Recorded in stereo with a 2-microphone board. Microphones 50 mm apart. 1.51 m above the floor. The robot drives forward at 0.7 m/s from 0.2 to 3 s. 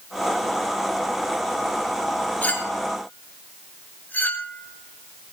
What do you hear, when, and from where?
2.4 s a clink: 30° left (ahead or behind), 3.5 m; by 5.3 s 35° left (ahead or behind), 3.5 m